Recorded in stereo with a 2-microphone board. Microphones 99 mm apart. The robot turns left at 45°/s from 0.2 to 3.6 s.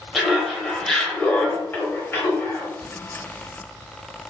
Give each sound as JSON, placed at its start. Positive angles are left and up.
{"t": 0.1, "sound": "laughter", "side_deg": 0, "distance_m": 0.9}
{"t": 2.8, "sound": "a crack", "side_deg": -15, "distance_m": 2.0}